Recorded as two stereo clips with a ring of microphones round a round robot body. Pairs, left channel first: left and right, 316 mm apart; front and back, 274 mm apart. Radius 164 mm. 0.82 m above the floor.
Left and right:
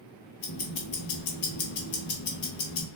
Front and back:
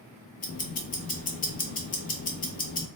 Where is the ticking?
45° left, 0.6 m.